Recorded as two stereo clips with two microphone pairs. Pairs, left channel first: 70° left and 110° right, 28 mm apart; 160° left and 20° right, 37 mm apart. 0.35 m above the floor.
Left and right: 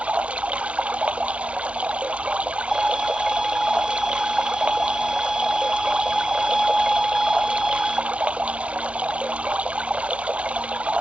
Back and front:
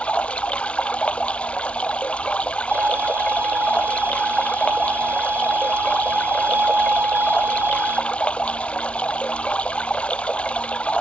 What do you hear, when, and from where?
0.0 s running water: 145° right
2.7 s a violin: 25° right